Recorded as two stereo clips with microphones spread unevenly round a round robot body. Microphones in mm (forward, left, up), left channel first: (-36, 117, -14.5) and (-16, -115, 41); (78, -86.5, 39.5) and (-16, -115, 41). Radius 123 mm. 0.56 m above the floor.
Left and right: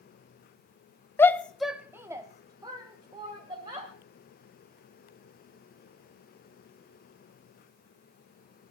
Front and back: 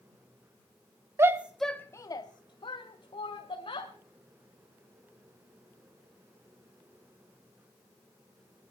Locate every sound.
1.2 s a shout: 150° left, 0.8 m; by 3.9 s 10° right, 2.5 m